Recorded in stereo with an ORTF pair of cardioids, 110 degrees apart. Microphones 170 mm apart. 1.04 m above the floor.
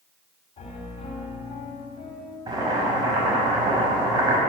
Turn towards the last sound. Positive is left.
turn(degrees=-25)